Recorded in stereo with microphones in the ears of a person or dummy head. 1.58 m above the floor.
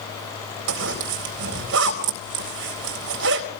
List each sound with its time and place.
0.7 s a zipper: 70° right (ahead or behind), 3.5 m